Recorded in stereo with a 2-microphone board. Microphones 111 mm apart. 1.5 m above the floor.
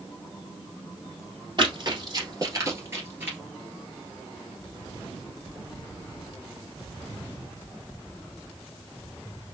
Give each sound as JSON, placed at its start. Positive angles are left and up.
{"t": 1.6, "sound": "running footsteps", "side_deg": -45, "distance_m": 2.0}